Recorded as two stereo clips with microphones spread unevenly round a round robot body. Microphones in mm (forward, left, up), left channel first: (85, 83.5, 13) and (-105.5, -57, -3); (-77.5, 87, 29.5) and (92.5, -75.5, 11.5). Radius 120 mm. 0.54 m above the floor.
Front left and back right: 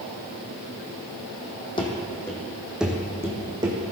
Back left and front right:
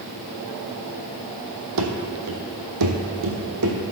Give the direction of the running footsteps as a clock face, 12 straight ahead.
1 o'clock.